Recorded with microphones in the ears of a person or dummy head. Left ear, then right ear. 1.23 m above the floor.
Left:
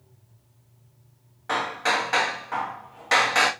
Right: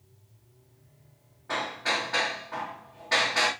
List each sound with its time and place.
1.5 s hammering: 40° left (ahead or behind), 1.1 m